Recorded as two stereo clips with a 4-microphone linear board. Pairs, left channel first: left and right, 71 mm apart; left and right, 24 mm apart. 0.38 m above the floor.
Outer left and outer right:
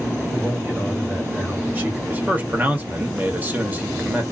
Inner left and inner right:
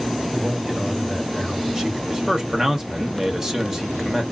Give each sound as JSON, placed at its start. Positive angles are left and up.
{"t": 0.3, "sound": "a man speaking", "side_deg": -25, "distance_m": 1.5}
{"t": 2.1, "sound": "a man speaking", "side_deg": -25, "distance_m": 0.9}